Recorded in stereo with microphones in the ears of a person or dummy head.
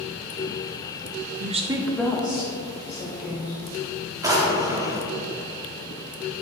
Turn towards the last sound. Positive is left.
turn(degrees=-20)  # may be behind; listen again after turning